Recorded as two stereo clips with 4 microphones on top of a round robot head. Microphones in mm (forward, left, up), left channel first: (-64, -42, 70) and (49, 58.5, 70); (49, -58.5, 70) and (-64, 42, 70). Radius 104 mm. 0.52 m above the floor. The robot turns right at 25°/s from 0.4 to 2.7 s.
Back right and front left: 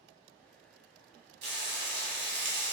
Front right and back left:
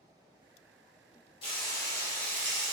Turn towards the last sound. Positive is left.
turn(degrees=50)